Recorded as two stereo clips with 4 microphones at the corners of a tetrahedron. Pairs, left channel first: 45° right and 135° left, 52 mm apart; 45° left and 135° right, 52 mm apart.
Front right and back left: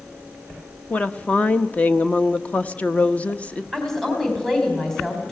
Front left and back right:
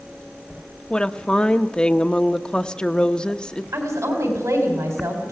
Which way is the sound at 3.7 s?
130° right.